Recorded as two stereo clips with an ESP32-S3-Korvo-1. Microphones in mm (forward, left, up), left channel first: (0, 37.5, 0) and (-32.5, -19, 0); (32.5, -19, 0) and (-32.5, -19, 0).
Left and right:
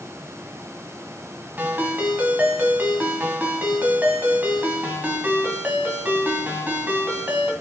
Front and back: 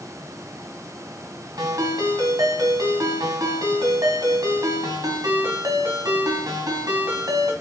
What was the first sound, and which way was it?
A ringtone, 175° left.